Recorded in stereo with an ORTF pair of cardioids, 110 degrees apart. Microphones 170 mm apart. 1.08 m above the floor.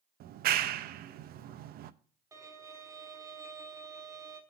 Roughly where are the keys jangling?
No keys jangling in this recording.